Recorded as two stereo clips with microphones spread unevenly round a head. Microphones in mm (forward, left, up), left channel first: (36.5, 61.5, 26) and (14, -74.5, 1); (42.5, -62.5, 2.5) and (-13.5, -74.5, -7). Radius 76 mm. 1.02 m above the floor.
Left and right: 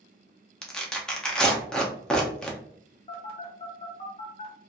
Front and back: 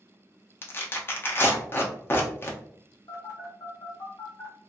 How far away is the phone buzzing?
About 0.7 m.